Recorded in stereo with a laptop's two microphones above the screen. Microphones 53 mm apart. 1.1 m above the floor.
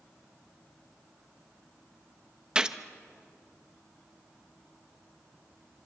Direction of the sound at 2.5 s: 15° right (ahead or behind).